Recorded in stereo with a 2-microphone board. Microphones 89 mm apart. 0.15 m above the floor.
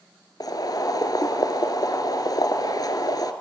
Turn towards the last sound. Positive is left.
turn(degrees=50)  # may be behind; listen again after turning